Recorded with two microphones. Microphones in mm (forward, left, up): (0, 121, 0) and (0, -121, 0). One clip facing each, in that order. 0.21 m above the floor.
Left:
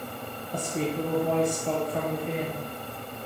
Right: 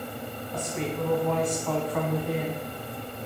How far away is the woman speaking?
About 1.5 m.